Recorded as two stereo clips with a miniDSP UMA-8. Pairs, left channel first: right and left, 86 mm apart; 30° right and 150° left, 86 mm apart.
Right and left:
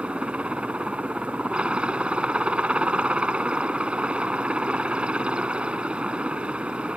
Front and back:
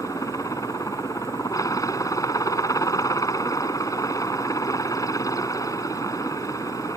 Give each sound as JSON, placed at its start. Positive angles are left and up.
{"t": 0.0, "sound": "a helicopter", "azimuth_deg": 15}